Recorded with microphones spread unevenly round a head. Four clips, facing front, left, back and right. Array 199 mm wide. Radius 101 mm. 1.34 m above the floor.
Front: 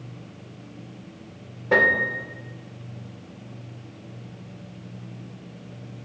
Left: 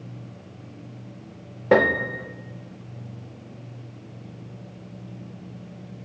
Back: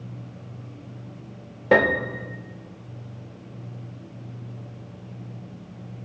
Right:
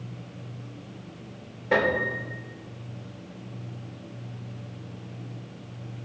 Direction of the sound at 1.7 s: 125° left.